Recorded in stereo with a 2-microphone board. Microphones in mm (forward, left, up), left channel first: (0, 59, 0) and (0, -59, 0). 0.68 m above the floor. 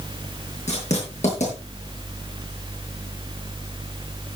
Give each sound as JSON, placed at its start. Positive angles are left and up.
{"t": 0.7, "sound": "writing", "side_deg": 75, "distance_m": 8.5}